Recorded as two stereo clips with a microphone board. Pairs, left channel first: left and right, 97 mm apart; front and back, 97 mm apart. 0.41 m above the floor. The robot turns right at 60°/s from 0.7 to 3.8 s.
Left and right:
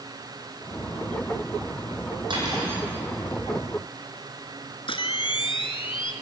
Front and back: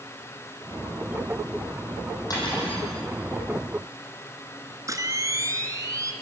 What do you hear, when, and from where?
2.3 s cutlery clinking: 50° right, 9 m; by 2.9 s 20° right, 9 m
4.9 s a camera shutter: 120° left, 1.9 m